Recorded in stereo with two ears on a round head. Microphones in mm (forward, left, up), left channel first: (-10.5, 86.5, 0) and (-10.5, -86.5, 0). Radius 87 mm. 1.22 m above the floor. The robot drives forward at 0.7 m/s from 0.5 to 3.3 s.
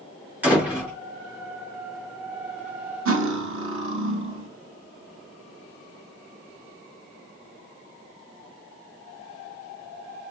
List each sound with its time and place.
0.4 s a door slam: 10° right (ahead or behind), 3 m
3.0 s cutlery clinking: 75° right (ahead or behind), 1.2 m; by 4.5 s 70° right (ahead or behind), 1.2 m